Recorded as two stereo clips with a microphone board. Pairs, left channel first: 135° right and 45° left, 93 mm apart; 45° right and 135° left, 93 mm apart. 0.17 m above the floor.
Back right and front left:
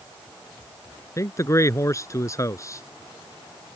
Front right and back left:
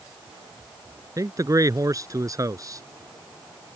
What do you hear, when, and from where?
1.2 s a man speaking: 175° left